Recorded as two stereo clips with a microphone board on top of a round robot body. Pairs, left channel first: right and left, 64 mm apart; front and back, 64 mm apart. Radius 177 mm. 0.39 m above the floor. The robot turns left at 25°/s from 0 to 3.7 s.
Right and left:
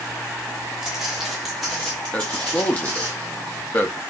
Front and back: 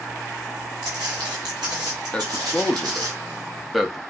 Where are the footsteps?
170° left, 0.9 m; by 3.1 s 165° right, 1.1 m.